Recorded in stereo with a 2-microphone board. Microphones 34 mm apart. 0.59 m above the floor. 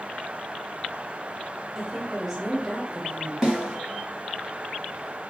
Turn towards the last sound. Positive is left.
turn(degrees=-15)  # may be behind; listen again after turning